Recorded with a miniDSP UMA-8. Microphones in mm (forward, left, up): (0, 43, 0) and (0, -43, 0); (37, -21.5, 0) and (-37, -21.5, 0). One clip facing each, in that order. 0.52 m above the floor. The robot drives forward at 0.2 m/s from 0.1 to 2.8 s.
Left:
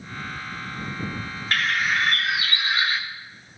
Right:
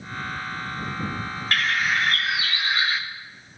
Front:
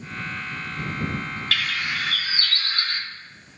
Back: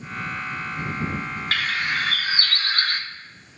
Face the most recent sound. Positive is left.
turn(degrees=180)